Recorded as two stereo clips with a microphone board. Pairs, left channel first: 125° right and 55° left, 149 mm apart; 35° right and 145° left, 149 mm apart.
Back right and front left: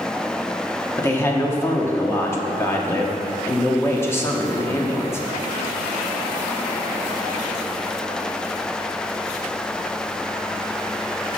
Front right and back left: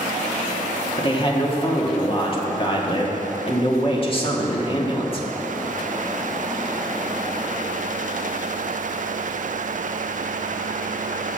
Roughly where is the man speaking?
Ahead right.